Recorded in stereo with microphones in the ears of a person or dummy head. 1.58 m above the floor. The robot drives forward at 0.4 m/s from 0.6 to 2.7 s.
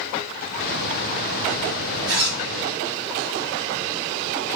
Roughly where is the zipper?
Right.